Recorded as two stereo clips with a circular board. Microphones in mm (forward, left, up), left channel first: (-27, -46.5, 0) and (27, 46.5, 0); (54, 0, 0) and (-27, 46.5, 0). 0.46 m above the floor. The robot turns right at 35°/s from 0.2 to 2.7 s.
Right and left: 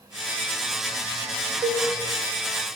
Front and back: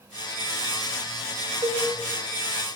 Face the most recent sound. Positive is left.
turn(degrees=155)